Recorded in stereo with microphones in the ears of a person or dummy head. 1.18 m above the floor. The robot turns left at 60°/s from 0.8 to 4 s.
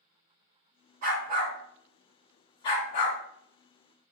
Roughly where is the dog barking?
Right.